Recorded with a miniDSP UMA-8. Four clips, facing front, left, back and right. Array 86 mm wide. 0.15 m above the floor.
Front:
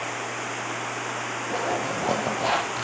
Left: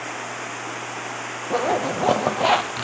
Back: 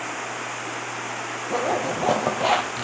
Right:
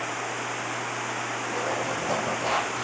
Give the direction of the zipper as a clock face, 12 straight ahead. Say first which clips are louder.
Left 9 dB, back 4 dB; 8 o'clock.